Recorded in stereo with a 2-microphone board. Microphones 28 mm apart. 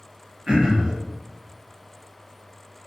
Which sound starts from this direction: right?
Throat clearing, at 0.5 s.